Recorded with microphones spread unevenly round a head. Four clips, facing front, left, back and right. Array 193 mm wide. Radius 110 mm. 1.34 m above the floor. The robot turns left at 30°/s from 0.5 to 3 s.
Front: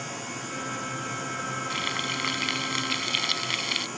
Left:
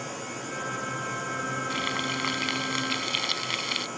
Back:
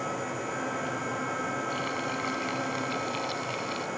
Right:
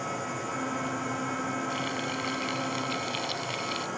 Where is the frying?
80° left; by 3.9 s 40° left.